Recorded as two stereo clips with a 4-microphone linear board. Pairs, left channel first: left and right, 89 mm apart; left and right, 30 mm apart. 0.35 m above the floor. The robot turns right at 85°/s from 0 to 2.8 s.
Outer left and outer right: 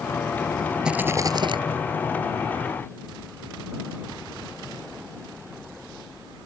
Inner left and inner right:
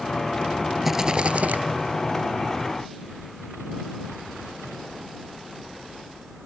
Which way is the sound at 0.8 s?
175° right.